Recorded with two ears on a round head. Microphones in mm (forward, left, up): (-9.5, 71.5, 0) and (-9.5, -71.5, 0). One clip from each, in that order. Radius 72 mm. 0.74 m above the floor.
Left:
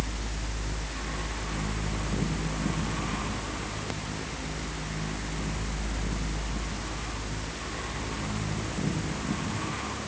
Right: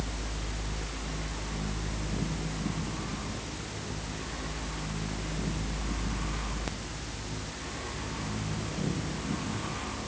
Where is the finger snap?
No finger snap in this recording.